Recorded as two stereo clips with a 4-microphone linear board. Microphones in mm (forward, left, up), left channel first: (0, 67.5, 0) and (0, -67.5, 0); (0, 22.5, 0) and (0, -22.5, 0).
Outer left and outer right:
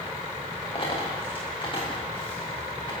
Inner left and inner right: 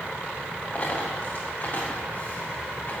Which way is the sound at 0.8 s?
35° left (ahead or behind).